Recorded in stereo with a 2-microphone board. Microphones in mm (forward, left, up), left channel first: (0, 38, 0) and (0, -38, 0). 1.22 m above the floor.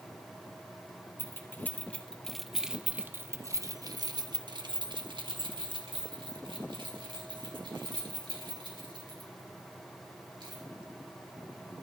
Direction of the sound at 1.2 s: 30° left (ahead or behind).